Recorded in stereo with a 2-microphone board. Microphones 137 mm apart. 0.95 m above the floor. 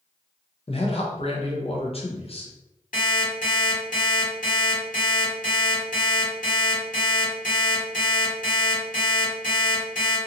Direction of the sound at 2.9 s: 80° left.